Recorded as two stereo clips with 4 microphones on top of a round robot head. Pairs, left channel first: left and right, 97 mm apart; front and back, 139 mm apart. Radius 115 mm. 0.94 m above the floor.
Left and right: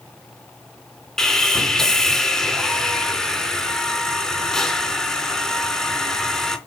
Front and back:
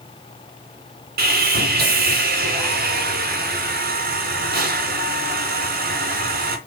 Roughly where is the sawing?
Behind.